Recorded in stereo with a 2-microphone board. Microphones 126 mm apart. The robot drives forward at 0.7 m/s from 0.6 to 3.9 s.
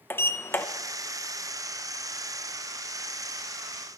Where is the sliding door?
20° left (ahead or behind), 0.6 m; by 0.7 s 15° left (ahead or behind), 0.7 m.